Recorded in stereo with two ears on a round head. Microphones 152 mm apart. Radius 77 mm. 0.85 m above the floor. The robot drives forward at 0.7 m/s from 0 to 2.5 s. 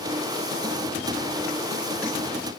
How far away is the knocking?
No knocking in this recording.